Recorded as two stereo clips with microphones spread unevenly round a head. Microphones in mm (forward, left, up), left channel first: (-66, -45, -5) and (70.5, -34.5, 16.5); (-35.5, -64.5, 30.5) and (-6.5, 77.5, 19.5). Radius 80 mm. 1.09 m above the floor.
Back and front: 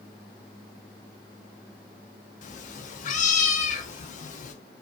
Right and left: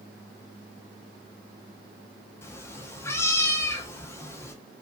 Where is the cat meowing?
165° right, 0.6 m.